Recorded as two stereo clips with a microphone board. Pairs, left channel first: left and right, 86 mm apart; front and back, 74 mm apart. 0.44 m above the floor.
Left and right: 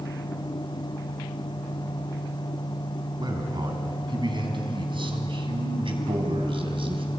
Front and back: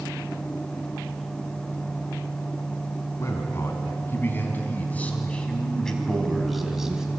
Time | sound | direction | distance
3.2 | a man speaking | 50° right | 4 m